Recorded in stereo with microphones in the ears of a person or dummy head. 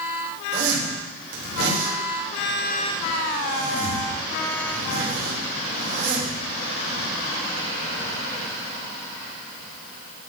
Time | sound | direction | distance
0.5 | a zipper | 65° right (ahead or behind) | 3.5 m